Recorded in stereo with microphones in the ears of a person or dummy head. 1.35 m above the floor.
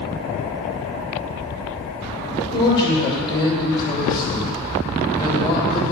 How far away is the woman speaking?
About 2.5 m.